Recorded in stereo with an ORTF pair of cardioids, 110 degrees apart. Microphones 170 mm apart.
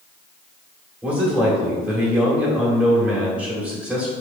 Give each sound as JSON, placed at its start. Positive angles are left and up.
{"t": 1.0, "sound": "a man speaking", "azimuth_deg": -10, "distance_m": 1.5}